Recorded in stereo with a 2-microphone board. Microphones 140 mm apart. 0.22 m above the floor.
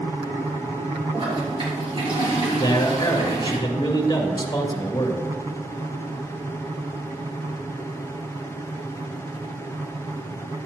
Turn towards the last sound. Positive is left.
turn(degrees=25)  # may be behind; listen again after turning